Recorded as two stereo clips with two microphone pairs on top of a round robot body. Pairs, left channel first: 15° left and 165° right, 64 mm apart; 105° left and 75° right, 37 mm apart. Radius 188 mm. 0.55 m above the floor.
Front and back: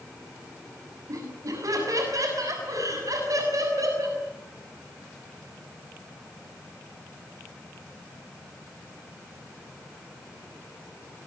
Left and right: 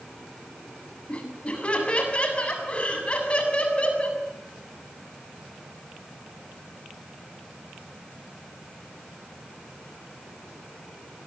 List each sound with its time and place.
1.1 s laughter: 165° left, 7 m